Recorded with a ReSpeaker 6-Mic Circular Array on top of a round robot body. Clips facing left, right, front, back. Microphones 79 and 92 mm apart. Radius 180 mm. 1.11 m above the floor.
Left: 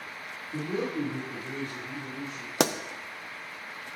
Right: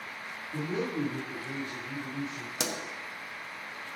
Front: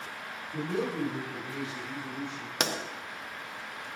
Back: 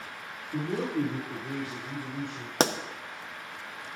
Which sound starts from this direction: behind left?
A pop, at 2.6 s.